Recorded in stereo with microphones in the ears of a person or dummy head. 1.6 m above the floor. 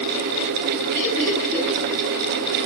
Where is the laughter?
Centre (ahead or behind), 4.5 m.